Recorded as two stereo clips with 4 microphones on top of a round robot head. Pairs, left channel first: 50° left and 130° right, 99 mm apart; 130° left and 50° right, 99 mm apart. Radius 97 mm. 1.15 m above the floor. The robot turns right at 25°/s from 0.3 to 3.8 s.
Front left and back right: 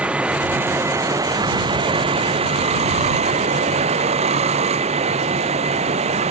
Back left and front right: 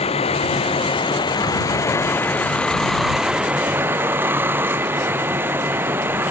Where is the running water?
150° left; by 6.3 s 120° right.